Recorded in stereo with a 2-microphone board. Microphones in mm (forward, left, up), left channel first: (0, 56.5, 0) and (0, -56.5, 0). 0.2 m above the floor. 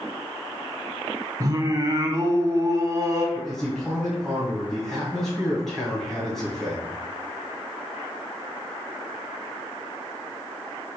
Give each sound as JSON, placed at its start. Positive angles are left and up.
{"t": 1.4, "sound": "singing", "side_deg": -30, "distance_m": 0.9}
{"t": 3.4, "sound": "a man speaking", "side_deg": 0, "distance_m": 1.5}